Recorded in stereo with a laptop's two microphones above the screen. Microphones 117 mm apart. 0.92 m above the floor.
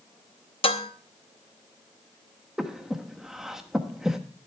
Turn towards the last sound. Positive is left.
turn(degrees=-5)  # may be behind; listen again after turning